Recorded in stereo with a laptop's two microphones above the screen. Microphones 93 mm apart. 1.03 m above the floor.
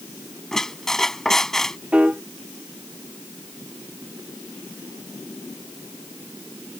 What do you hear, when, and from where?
0.5 s a squeak: 5° left (ahead or behind)
1.9 s a piano: 15° right (ahead or behind)